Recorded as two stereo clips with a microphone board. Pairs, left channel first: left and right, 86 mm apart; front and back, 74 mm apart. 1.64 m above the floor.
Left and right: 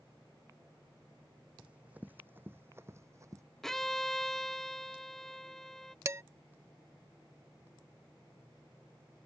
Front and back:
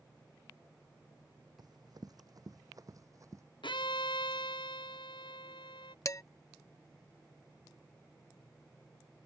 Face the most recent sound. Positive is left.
turn(degrees=-40)